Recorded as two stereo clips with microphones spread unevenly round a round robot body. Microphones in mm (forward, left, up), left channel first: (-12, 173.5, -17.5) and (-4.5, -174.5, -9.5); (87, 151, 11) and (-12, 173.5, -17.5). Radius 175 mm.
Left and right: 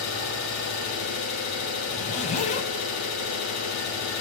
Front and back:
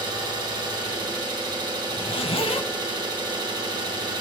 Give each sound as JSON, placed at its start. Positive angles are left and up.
{"t": 0.0, "sound": "an engine running", "azimuth_deg": 130, "distance_m": 1.9}
{"t": 1.9, "sound": "a zipper", "azimuth_deg": 20, "distance_m": 0.8}